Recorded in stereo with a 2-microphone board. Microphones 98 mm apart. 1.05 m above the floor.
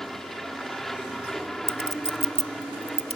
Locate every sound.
0.0 s an aircraft: centre (ahead or behind)
1.7 s a clink: 75° right (ahead or behind)